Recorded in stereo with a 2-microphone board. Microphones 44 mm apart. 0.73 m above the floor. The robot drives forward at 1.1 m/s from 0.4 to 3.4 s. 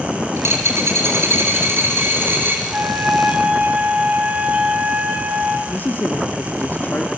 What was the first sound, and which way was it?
A dropped coin, 80° right.